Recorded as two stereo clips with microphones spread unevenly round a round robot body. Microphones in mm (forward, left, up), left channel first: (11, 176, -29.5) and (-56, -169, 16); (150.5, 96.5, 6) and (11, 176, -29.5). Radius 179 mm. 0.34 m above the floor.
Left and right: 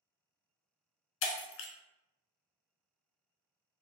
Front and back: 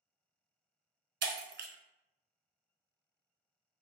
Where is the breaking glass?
135° left, 0.5 m.